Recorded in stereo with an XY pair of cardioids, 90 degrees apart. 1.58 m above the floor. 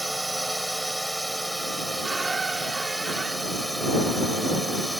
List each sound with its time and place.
0.0 s a drone: 5° right
2.0 s a squeak: 30° right